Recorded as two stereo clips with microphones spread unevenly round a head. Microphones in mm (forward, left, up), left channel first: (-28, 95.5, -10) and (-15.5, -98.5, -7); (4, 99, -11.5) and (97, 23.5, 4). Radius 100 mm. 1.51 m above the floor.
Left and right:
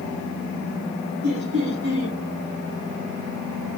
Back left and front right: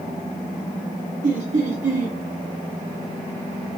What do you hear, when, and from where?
1.2 s laughter: 50° right, 1.3 m